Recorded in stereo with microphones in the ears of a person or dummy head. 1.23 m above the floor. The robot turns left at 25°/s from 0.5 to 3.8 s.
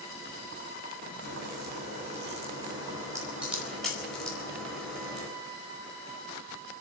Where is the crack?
120° right, 4.5 m; by 5.3 s 175° left, 4.5 m.